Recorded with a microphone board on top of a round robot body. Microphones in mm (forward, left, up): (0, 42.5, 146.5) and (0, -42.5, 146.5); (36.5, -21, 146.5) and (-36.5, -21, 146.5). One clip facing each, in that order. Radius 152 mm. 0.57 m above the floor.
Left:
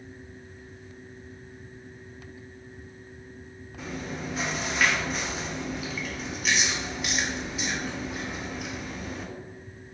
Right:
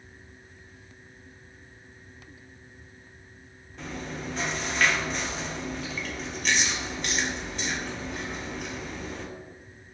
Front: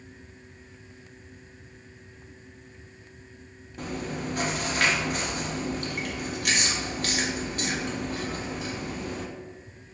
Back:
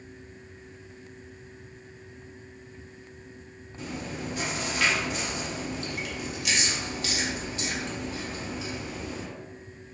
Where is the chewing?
5° left, 0.6 m.